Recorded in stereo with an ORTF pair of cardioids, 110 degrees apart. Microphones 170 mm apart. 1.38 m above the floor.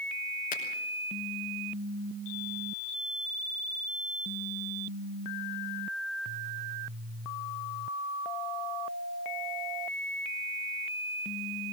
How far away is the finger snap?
About 5.5 m.